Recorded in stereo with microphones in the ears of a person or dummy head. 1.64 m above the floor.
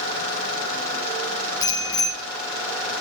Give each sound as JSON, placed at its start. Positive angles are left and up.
{"t": 1.6, "sound": "a bicycle bell", "side_deg": 15, "distance_m": 7.5}